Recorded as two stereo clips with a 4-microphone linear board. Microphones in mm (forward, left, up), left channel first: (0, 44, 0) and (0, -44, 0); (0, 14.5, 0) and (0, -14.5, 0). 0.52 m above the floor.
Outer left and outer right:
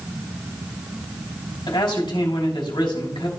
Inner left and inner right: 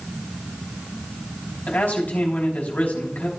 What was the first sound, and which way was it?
A man speaking, 65° left (ahead or behind).